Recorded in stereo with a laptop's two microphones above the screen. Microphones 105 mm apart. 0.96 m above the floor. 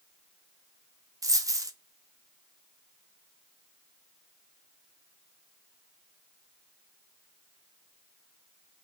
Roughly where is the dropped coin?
Right.